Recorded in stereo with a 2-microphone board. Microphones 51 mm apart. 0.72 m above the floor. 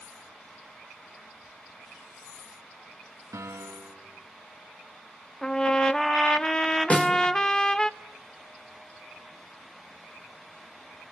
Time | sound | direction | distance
3.3 | a piano | 80° right | 3 m
5.4 | a trumpet | 15° left (ahead or behind) | 0.5 m
6.9 | a snare drum | 25° left (ahead or behind) | 1.9 m